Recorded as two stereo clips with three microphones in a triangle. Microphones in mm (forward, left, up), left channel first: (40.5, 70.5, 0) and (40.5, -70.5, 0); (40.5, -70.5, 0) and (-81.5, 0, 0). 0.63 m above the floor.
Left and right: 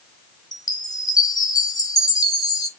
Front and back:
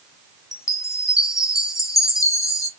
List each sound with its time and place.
0.5 s a chime: 35° left, 0.9 m